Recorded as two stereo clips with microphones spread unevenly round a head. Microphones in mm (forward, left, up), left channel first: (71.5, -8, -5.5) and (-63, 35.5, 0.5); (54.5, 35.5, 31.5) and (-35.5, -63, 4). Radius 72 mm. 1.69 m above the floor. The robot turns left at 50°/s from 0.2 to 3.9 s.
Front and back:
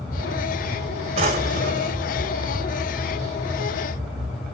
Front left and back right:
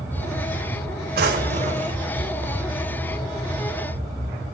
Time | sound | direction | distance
1.1 | a drawer | 155° right | 2.0 m